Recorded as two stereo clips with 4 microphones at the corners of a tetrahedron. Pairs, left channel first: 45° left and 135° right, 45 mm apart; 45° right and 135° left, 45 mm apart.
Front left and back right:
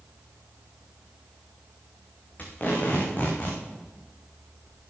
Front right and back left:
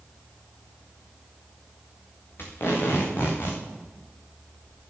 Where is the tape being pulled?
15° right, 4 m.